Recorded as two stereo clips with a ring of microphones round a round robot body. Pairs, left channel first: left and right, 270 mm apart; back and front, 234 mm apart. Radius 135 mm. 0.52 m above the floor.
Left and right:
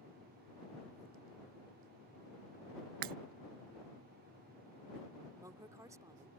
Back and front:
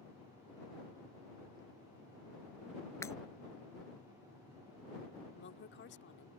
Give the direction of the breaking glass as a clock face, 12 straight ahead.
3 o'clock.